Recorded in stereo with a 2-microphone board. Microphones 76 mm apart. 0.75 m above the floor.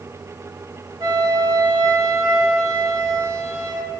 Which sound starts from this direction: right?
A flute, at 1.0 s.